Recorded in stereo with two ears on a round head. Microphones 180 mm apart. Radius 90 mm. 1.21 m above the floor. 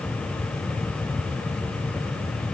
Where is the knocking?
No knocking in this recording.